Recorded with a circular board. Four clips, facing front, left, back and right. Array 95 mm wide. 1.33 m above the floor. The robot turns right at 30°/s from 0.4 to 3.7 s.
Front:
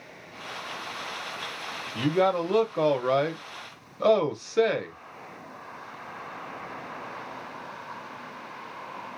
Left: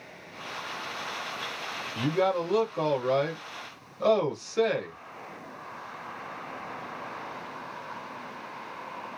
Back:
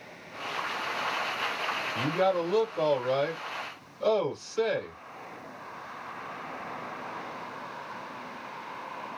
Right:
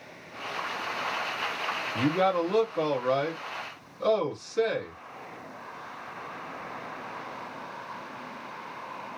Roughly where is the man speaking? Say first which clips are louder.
Right 1 dB, front 3 dB; ahead right.